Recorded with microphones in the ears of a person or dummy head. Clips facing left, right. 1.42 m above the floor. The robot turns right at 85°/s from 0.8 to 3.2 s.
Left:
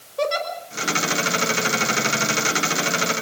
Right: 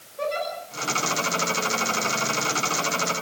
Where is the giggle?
85° left, 4.5 m.